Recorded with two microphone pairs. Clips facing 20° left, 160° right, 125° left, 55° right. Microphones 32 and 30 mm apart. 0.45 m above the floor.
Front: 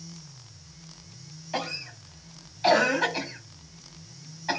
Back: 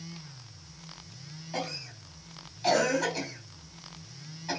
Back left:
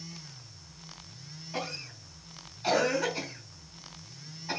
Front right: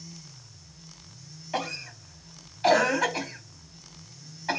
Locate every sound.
1.5 s a cough: 35° right, 3 m